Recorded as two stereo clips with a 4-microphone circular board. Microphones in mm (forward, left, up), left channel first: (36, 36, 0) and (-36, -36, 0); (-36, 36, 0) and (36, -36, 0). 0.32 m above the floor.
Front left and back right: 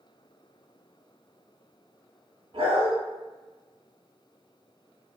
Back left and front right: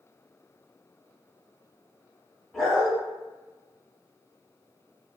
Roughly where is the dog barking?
Behind right.